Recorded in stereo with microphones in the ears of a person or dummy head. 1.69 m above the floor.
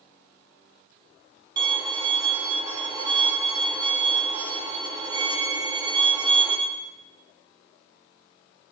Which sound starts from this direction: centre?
A violin, at 1.6 s.